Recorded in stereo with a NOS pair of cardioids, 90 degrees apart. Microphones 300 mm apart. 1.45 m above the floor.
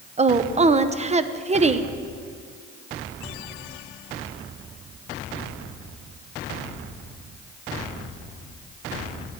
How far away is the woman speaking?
About 1.0 m.